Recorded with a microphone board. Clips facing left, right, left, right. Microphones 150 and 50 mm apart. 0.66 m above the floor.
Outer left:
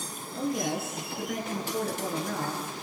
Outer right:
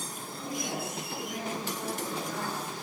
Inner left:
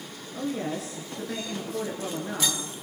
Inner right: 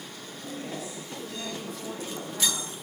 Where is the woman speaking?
80° left, 10 m.